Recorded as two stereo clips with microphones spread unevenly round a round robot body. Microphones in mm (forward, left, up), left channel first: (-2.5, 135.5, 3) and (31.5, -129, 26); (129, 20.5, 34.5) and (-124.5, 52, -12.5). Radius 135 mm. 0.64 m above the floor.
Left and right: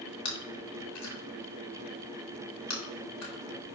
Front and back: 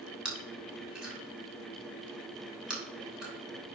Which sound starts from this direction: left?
Chewing, at 0.2 s.